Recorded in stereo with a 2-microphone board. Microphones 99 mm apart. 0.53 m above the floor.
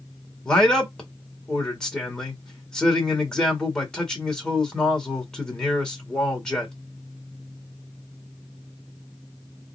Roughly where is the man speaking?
Centre.